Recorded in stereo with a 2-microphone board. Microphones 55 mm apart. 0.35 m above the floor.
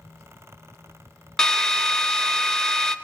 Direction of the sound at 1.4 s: 10° left (ahead or behind).